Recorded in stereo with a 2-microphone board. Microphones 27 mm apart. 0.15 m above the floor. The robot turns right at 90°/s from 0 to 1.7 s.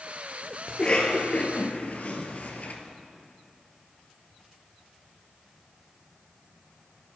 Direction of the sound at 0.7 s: 20° left (ahead or behind).